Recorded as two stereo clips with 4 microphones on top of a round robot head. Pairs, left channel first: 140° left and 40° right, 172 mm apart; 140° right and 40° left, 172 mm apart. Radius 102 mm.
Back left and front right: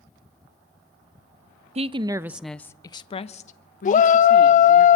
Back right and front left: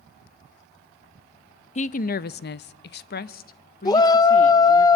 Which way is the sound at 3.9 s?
160° left.